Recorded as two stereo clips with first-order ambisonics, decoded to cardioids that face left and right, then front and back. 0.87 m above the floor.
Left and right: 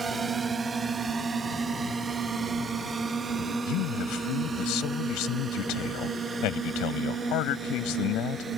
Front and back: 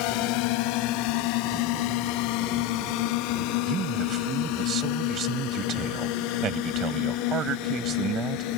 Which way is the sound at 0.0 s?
20° right.